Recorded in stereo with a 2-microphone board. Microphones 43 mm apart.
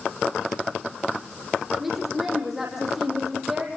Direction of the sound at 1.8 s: 5° right (ahead or behind).